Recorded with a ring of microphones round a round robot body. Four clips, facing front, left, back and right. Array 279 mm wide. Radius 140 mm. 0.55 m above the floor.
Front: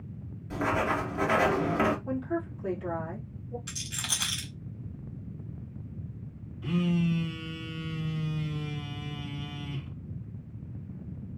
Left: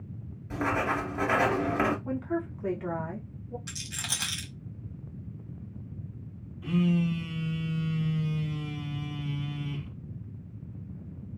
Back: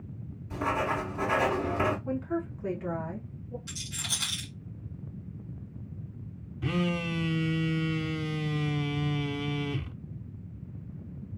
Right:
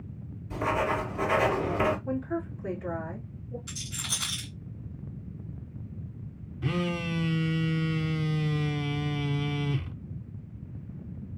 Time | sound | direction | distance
0.5 | writing | 60° left | 2.5 m
2.0 | a woman speaking | 105° left | 1.8 m
3.7 | a rattle | 55° left | 1.4 m
6.6 | a phone buzzing | 130° right | 0.5 m